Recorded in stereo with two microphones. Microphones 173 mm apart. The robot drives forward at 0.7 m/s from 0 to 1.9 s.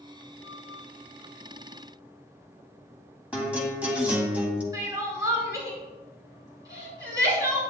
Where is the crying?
20° right (ahead or behind), 4.5 m.